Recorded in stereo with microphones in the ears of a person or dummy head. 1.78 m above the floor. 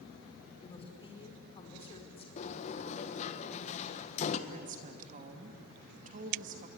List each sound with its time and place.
0.6 s a woman speaking: 25° left (ahead or behind), 4.5 m
2.4 s a sliding door: 40° left (ahead or behind), 1.5 m
4.5 s a woman speaking: 45° right (ahead or behind), 2.5 m